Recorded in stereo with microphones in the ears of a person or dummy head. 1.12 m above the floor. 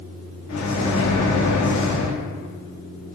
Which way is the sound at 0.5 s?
75° left (ahead or behind).